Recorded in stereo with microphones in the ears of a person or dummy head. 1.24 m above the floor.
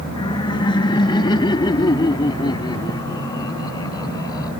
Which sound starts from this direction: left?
Laughter, at 0.2 s.